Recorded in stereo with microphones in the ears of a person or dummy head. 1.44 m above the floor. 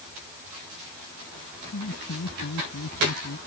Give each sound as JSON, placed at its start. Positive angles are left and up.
{"t": 1.7, "sound": "laughter", "side_deg": 70}